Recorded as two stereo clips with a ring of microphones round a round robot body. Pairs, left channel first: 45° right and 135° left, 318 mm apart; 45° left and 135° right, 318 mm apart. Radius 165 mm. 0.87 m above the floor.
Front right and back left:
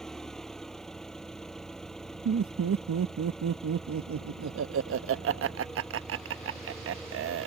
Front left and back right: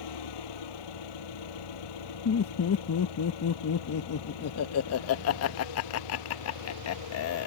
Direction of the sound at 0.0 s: 45° left.